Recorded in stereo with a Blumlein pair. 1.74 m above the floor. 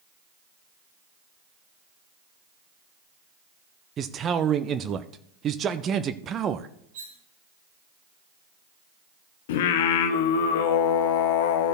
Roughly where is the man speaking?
Ahead right.